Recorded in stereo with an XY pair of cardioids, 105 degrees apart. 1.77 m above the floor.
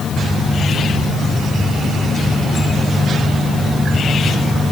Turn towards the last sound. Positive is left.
No sound to turn to.